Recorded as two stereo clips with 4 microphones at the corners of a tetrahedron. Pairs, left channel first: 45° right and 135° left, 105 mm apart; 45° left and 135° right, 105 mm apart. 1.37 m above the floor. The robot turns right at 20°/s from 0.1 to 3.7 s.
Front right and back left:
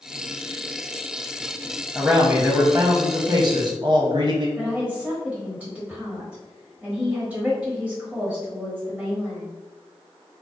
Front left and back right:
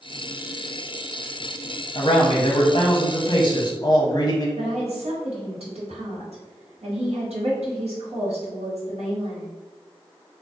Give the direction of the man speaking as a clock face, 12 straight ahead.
10 o'clock.